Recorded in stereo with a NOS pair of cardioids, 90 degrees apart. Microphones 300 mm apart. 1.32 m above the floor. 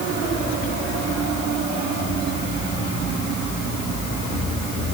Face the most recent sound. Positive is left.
No sound to turn to.